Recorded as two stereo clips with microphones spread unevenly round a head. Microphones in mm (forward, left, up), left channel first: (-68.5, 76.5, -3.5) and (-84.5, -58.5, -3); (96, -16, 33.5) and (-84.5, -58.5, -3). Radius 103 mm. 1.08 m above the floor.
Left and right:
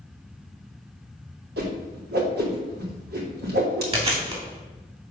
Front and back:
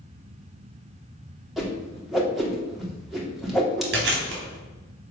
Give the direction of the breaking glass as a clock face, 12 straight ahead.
No breaking glass in this recording.